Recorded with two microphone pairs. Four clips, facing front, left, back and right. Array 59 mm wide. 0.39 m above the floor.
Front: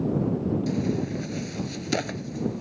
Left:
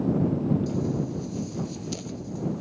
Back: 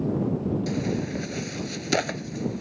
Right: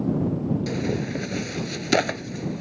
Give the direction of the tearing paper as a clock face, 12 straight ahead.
4 o'clock.